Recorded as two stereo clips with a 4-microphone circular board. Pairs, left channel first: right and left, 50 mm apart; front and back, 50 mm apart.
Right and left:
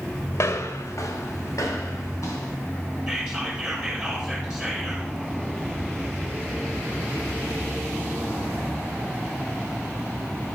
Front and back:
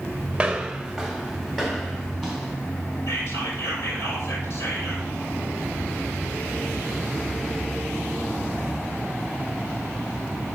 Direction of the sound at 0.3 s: 115° right.